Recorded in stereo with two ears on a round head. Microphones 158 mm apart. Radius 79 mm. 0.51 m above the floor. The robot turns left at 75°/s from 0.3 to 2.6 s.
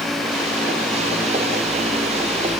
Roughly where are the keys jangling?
I don't hear keys jangling.